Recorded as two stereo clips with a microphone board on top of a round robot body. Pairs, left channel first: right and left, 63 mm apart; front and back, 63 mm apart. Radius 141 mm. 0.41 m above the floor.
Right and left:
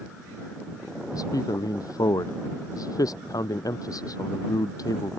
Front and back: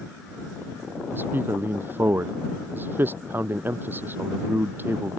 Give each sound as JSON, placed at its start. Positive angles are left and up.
{"t": 1.1, "sound": "a man speaking", "azimuth_deg": -120}